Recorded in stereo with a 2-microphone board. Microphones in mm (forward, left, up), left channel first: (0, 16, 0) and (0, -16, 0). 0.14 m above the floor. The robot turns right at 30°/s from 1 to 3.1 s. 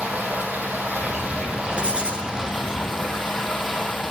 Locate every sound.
0.0 s running water: 55° right, 2.5 m; by 4.1 s 5° left, 2.5 m
1.8 s writing: 35° right (ahead or behind), 1.9 m; by 2.3 s 25° right (ahead or behind), 1.9 m